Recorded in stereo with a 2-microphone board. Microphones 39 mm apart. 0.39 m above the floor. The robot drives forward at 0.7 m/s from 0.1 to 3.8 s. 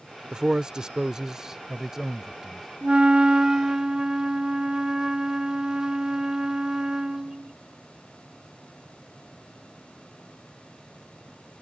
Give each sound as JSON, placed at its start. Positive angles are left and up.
{"t": 0.3, "sound": "a man speaking", "side_deg": -20}
{"t": 2.8, "sound": "a flute", "side_deg": -25}